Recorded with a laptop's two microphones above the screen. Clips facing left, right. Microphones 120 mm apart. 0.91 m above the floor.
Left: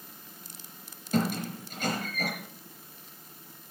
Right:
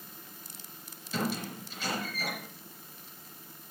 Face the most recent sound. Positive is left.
turn(degrees=50)  # may be behind; listen again after turning